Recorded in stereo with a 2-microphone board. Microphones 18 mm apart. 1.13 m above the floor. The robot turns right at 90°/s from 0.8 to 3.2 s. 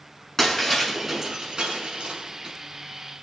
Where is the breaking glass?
20° left (ahead or behind), 6.5 m; by 2.5 s 40° right (ahead or behind), 6.5 m.